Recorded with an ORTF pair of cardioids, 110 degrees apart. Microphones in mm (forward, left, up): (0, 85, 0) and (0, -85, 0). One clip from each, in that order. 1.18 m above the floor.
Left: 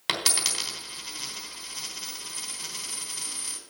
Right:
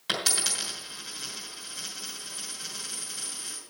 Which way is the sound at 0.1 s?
45° left.